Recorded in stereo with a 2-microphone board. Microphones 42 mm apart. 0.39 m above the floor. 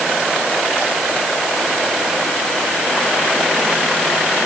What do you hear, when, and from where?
Only background noise.